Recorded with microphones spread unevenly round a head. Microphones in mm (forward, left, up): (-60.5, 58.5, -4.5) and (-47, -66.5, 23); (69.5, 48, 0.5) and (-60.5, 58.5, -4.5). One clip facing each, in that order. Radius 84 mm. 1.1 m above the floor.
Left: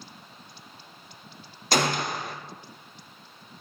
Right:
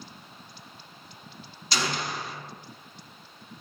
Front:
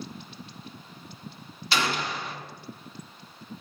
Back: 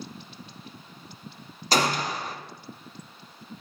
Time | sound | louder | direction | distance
1.7 | a gunshot | left 5 dB, back 4 dB | 135° left | 0.7 m